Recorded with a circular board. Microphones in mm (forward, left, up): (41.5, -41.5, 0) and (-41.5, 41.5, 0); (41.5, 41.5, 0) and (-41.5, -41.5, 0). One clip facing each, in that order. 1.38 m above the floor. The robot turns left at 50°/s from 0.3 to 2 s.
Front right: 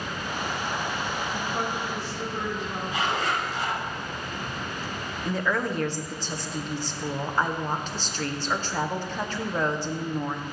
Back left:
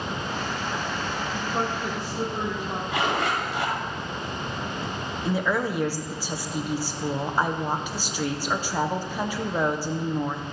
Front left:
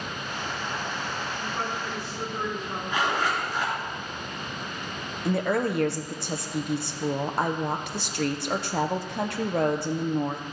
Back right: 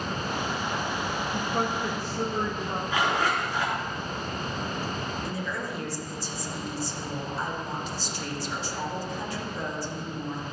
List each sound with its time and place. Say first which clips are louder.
1.3 s a woman speaking: back left 4 dB, back right 6 dB; 145° right, 2 m; by 2.8 s straight behind, 2 m
2.9 s a zipper: back left 2 dB, even; 150° left, 3.5 m
5.2 s a woman speaking: back left 2 dB, front left 8 dB; 55° left, 0.9 m